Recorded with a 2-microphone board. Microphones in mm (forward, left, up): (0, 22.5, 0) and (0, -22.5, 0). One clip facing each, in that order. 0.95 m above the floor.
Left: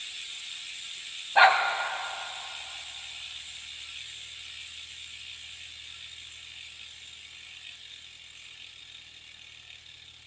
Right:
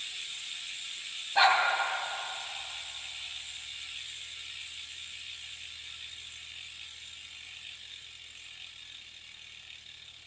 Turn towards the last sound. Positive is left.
turn(degrees=25)  # may be behind; listen again after turning